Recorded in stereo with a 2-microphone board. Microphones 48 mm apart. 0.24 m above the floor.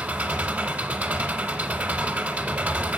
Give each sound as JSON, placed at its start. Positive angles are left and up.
{"t": 0.0, "sound": "an engine running", "side_deg": -35, "distance_m": 0.7}